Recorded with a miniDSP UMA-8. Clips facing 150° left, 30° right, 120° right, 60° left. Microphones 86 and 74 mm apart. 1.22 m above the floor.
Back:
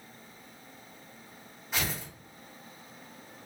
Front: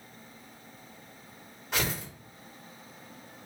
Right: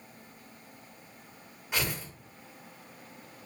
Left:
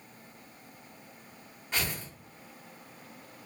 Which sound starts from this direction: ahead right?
Tearing paper, at 1.7 s.